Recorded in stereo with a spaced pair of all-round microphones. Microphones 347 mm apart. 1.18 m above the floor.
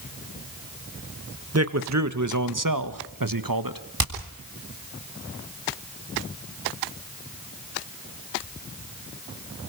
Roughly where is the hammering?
Right.